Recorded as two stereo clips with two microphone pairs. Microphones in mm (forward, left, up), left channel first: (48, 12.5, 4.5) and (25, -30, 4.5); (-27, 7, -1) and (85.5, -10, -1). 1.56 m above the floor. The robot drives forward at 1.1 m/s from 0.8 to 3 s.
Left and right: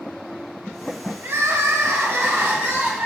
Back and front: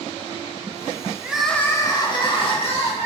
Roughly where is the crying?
Right.